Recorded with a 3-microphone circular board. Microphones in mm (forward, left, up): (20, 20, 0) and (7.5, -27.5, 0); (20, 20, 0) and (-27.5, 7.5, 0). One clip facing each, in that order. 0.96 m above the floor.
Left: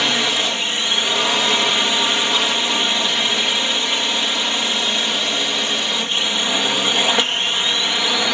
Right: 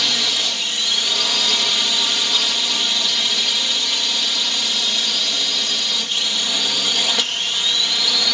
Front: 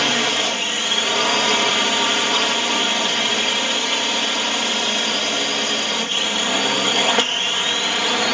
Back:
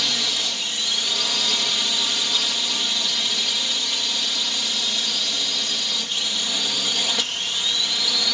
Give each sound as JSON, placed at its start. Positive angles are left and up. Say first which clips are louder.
{"t": 0.0, "sound": "a drone", "louder": "left 3 dB, front 7 dB", "azimuth_deg": 25}